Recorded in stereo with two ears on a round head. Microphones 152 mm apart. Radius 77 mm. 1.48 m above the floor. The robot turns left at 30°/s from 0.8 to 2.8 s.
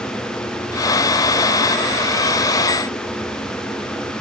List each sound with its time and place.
Only background noise.